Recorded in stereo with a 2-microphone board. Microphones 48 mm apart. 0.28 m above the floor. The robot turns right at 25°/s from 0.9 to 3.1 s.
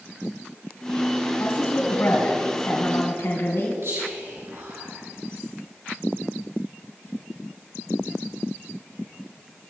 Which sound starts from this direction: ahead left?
A woman speaking, at 1.4 s.